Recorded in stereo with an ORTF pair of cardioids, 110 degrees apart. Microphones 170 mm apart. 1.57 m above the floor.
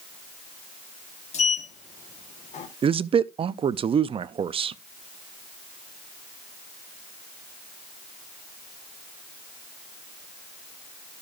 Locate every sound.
1.3 s a sliding door: 40° left, 1.4 m
2.8 s a man speaking: 35° right, 0.5 m